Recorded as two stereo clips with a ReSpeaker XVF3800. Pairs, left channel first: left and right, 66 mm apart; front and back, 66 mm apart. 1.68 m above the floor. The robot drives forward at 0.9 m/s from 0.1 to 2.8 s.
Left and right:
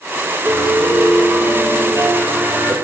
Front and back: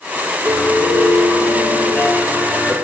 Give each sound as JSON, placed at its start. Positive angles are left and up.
{"t": 0.5, "sound": "a piano", "azimuth_deg": -40, "distance_m": 4.5}